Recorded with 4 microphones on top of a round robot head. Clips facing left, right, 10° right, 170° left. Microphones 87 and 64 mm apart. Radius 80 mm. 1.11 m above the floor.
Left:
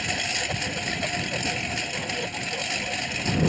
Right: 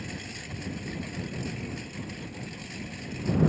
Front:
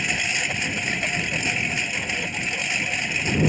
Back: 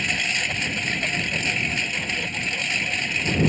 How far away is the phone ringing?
No phone ringing in this recording.